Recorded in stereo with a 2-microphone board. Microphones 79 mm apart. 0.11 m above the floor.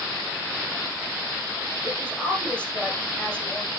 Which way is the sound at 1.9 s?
15° left (ahead or behind).